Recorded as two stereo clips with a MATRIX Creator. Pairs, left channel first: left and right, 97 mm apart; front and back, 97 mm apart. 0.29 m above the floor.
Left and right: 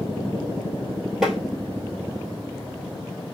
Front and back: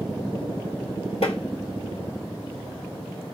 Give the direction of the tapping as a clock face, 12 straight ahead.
12 o'clock.